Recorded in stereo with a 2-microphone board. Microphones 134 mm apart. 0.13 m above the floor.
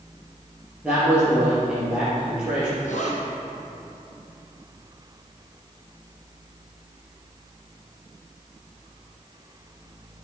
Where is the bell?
No bell in this recording.